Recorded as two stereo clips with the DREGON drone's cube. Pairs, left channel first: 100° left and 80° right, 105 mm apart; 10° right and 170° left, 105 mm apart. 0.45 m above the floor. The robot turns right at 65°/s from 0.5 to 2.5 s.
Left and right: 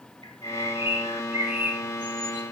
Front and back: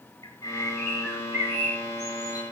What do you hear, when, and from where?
0.2 s a bird: 45° left, 5.5 m; by 2.4 s 170° left, 5.5 m